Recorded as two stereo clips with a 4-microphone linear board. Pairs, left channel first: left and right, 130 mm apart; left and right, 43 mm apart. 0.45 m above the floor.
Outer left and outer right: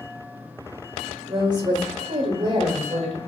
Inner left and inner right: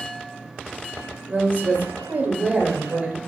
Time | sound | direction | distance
1.3 | a woman speaking | 35° right (ahead or behind) | 0.9 m